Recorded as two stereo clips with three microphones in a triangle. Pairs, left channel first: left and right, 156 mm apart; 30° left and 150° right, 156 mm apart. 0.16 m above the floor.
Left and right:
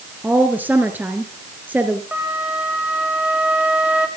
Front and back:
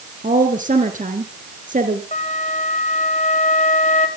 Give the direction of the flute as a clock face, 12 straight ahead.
12 o'clock.